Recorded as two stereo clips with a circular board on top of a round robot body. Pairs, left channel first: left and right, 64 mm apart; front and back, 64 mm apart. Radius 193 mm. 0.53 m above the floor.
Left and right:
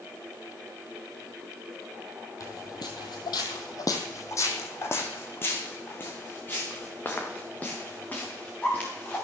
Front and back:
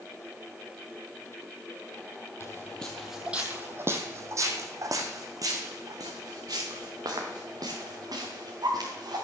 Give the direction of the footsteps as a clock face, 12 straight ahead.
10 o'clock.